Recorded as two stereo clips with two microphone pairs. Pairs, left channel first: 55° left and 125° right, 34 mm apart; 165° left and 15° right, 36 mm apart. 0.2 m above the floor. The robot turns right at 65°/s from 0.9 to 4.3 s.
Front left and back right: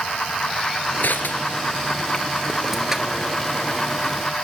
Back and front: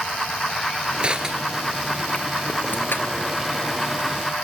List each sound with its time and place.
1.0 s crushing: 40° left, 3 m; by 3.3 s 175° right, 3 m